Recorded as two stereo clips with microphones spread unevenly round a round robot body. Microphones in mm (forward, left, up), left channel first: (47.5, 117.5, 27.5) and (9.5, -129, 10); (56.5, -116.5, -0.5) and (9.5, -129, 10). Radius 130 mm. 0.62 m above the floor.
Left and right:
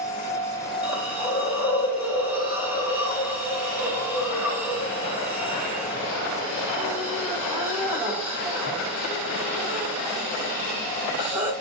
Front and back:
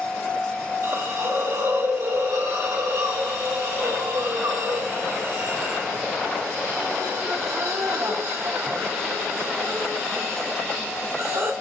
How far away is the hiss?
About 1.0 m.